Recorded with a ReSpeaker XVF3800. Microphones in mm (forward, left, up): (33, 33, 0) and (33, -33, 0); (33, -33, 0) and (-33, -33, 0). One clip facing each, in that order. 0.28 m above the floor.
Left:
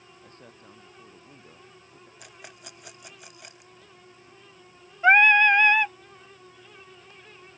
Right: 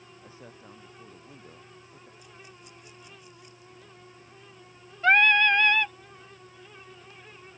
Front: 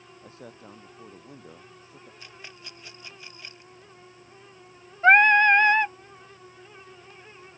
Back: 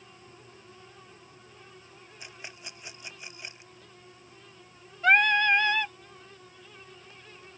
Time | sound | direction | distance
0.2 | a man speaking | 5° right | ?
2.2 | a rattle | 110° left | ?
5.0 | singing | 35° left | ?